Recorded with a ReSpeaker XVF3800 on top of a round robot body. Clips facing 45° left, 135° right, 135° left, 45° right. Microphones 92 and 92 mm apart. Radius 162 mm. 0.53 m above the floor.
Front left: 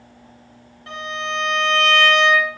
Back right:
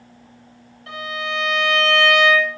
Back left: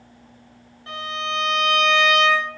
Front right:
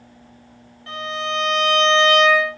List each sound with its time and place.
0.9 s a violin: 80° left, 1.5 m